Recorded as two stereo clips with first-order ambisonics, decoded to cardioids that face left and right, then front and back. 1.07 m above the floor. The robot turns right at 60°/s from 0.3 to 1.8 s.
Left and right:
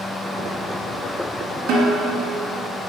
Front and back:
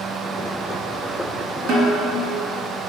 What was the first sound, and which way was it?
A snare drum, 140° right.